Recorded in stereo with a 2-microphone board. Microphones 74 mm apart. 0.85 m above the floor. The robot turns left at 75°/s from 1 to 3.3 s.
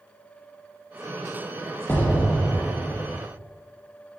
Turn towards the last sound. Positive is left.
turn(degrees=55)